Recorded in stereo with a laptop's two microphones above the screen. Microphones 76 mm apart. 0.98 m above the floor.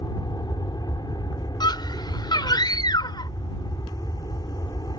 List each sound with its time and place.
0.0 s an aircraft: 65° left (ahead or behind)
1.6 s a scream: 70° left (ahead or behind)